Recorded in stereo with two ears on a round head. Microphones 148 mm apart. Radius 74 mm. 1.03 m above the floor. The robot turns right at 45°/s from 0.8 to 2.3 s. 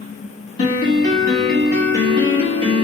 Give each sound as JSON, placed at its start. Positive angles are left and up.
{"t": 0.6, "sound": "a piano", "azimuth_deg": 145, "distance_m": 1.2}